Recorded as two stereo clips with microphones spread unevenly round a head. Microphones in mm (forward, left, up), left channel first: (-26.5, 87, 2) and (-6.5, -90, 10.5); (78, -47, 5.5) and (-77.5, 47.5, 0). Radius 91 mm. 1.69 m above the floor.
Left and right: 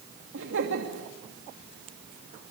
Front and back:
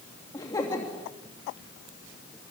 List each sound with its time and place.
0.3 s laughter: 105° right, 2.5 m